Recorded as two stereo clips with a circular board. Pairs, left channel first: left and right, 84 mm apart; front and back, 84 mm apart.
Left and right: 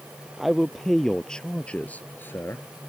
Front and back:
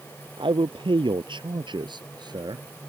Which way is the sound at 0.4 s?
Straight behind.